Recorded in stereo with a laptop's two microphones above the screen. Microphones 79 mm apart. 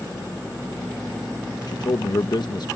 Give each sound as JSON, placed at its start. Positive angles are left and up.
{"t": 1.7, "sound": "a man speaking", "side_deg": 60}